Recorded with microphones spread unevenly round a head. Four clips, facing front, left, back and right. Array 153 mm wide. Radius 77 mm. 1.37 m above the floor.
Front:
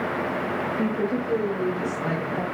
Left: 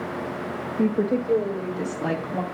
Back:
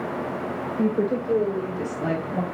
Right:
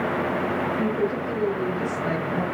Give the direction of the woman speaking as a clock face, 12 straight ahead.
7 o'clock.